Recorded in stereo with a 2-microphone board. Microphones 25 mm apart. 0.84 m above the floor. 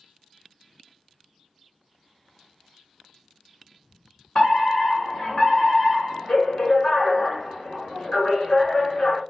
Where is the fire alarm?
40° left (ahead or behind), 1.9 m.